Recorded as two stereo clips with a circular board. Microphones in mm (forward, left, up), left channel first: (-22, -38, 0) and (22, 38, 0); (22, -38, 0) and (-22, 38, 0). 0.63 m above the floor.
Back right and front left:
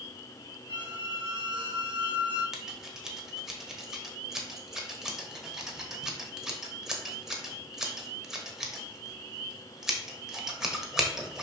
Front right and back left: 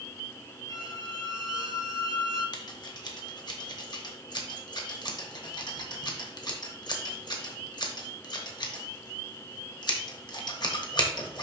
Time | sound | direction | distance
0.7 | a squeak | 90° left | 1.8 m
2.5 | scissors | 25° right | 1.2 m